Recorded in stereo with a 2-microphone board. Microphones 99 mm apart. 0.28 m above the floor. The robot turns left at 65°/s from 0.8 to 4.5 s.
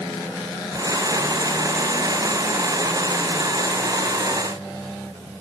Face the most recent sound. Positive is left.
No sound to turn to.